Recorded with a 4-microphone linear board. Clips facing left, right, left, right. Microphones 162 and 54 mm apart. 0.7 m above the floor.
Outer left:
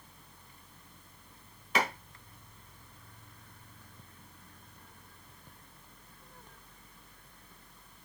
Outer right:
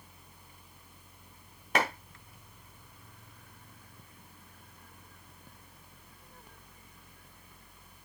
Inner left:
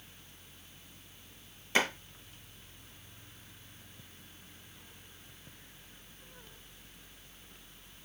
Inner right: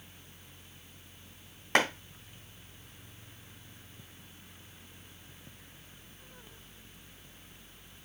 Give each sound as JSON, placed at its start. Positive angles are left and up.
{"t": 1.8, "sound": "a clap", "side_deg": -45, "distance_m": 3.0}